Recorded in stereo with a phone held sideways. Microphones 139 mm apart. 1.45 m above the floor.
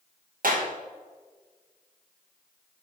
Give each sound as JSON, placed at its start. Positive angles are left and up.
{"t": 0.4, "sound": "a clap", "side_deg": -80, "distance_m": 1.4}